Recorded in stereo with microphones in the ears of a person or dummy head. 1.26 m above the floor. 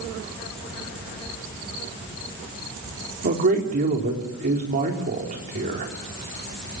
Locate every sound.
3.2 s a man speaking: 45° right (ahead or behind), 4 m